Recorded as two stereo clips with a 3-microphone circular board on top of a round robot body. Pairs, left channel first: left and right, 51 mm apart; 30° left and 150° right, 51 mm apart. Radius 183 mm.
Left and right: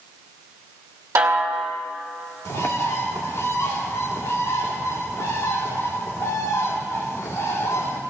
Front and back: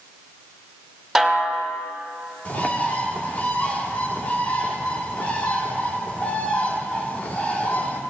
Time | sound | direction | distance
1.1 | a snare drum | 60° right | 1.9 m
2.5 | a bird | 90° left | 2 m